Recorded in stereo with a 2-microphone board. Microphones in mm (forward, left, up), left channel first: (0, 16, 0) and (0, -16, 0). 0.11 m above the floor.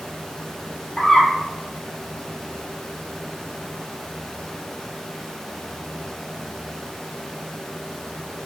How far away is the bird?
About 0.9 m.